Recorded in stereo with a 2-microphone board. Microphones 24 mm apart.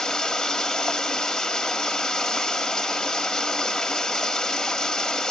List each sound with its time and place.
0.0 s running water: 30° left (ahead or behind), 1.2 m